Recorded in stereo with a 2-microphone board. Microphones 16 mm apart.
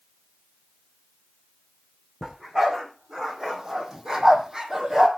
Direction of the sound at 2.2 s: 30° right (ahead or behind).